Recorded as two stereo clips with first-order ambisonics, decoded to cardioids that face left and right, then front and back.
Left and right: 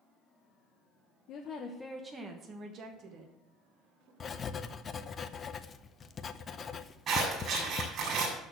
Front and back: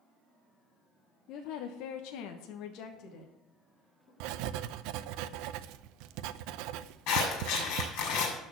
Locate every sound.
1.3 s a woman speaking: 45° left, 0.9 m; by 4.1 s 50° right, 3 m
4.2 s writing: 155° left, 0.5 m
7.1 s scissors: 25° right, 6 m